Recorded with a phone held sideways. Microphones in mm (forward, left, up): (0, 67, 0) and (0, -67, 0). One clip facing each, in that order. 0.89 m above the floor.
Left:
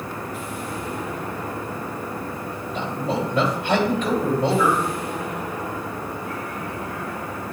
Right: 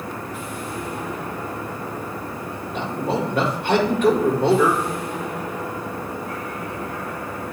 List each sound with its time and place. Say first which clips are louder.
2.7 s a man speaking: right 2 dB; 60° right (ahead or behind), 2 m